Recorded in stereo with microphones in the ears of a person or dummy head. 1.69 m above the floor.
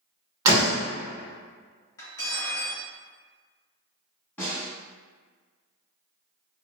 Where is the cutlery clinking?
20° left (ahead or behind), 1.5 m.